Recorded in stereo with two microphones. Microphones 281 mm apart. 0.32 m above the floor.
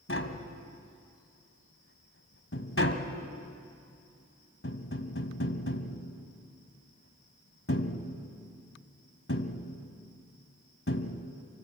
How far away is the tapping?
About 1.7 m.